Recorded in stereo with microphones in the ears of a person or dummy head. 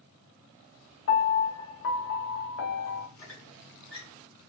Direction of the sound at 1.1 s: 65° left (ahead or behind).